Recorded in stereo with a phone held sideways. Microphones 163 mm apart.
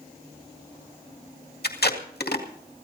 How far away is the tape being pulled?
About 2 m.